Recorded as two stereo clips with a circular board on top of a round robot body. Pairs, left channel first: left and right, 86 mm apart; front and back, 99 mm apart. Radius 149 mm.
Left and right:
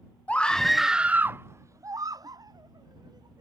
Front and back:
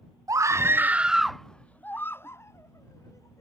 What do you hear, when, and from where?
0.3 s a scream: 155° left; by 3.4 s 55° right